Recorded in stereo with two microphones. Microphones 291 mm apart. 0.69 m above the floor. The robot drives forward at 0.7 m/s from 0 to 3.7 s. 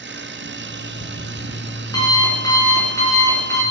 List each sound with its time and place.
0.5 s an alarm clock: 20° left (ahead or behind), 2.5 m; by 3.6 s 10° left (ahead or behind), 4.5 m